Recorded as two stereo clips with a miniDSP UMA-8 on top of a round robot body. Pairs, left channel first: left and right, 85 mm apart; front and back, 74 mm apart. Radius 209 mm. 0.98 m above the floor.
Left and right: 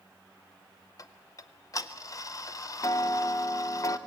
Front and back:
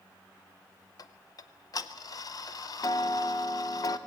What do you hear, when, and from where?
1.0 s ticking: 40° left, 0.6 m